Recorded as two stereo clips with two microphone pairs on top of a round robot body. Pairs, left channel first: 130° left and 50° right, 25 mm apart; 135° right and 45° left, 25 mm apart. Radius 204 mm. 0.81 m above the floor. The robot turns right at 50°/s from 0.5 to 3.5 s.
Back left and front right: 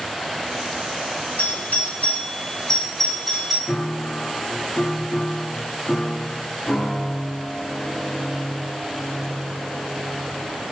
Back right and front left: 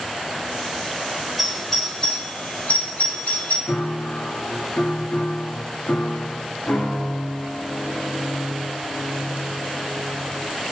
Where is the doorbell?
130° left, 6 m; by 3.6 s 125° right, 6 m.